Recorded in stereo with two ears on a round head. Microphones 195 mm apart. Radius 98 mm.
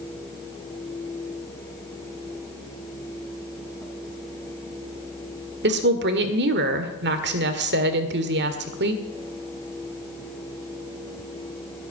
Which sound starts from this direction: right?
A woman speaking, at 5.6 s.